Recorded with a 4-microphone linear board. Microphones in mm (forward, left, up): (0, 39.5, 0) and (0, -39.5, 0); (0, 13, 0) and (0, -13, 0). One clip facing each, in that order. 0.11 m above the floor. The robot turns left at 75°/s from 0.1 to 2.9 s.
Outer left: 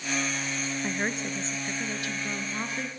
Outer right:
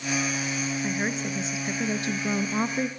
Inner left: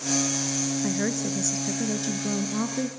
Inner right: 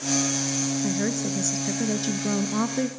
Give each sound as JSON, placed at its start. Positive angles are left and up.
{"t": 0.8, "sound": "a woman speaking", "side_deg": 15, "distance_m": 1.2}